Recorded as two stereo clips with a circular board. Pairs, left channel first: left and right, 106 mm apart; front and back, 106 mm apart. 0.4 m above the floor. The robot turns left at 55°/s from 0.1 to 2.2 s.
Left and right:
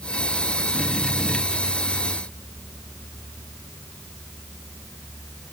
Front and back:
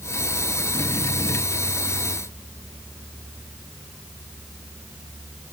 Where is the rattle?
No rattle in this recording.